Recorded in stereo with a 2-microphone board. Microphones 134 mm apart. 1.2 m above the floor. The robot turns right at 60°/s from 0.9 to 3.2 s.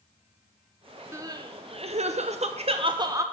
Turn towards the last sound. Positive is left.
turn(degrees=-30)